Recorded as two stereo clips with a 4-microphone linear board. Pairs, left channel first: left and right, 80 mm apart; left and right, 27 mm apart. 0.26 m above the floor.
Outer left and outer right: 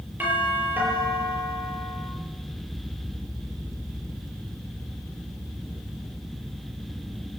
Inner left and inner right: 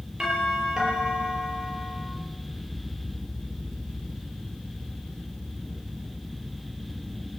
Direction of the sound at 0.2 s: 25° right (ahead or behind).